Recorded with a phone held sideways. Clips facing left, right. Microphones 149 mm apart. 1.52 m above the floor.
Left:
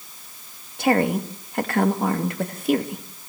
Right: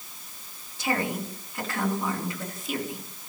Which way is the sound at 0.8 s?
65° left (ahead or behind).